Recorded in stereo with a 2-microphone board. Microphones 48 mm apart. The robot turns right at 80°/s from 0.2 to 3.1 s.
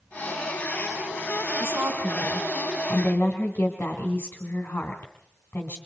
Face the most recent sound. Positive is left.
turn(degrees=45)